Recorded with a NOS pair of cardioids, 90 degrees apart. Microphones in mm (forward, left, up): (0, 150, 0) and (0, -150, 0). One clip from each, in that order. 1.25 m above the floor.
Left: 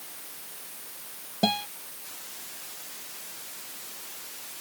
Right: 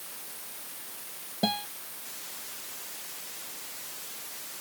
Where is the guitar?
25° left.